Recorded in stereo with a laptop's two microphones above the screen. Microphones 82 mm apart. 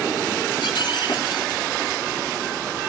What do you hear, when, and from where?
0.6 s breaking glass: 65° left (ahead or behind), 5 m